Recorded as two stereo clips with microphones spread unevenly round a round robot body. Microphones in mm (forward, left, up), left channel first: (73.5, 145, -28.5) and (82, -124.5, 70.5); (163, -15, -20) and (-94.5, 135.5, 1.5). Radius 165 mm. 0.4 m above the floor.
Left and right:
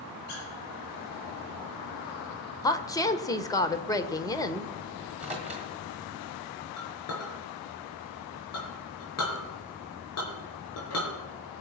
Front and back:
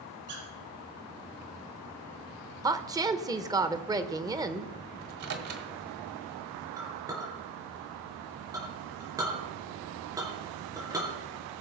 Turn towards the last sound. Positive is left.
turn(degrees=70)